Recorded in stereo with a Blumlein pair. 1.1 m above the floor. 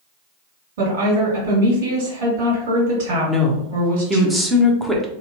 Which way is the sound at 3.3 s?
5° right.